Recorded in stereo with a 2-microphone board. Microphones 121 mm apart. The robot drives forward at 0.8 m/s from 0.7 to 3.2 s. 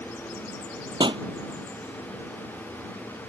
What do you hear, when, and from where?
1.0 s a pop: 40° right (ahead or behind)